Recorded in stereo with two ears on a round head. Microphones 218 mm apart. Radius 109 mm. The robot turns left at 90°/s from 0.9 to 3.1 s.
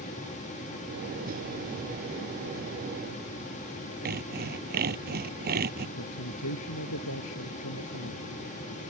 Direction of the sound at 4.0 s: 45° right (ahead or behind).